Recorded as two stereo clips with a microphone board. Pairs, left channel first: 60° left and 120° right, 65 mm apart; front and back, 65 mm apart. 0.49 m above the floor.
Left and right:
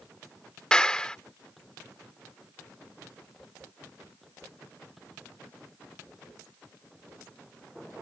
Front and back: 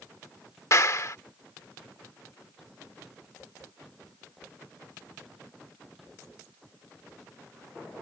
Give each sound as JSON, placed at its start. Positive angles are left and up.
{"t": 0.7, "sound": "a clap", "azimuth_deg": -10}